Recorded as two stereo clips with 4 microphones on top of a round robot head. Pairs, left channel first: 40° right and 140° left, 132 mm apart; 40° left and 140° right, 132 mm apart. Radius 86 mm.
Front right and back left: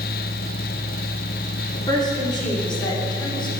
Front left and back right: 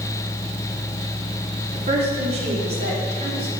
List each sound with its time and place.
1.7 s a woman speaking: 100° right, 3.5 m; by 3.5 s 95° right, 4.5 m